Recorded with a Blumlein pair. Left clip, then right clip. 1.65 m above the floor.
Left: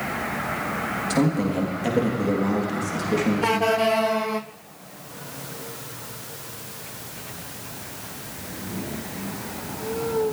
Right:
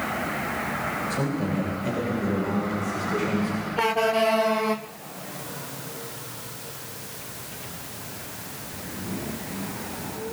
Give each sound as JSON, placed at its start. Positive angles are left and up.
{"t": 1.1, "sound": "a man speaking", "azimuth_deg": 55, "distance_m": 3.5}